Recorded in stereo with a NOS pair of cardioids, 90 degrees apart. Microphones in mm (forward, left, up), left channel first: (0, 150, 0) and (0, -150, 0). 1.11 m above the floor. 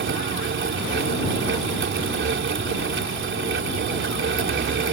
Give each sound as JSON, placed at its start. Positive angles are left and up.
{"t": 0.0, "sound": "a fan", "azimuth_deg": -40}